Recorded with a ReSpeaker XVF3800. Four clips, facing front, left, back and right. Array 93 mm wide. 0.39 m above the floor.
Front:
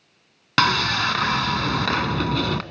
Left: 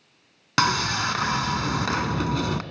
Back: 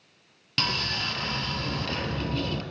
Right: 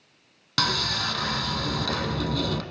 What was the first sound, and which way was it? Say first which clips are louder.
Sawing: left 5 dB, front 11 dB; 20° left.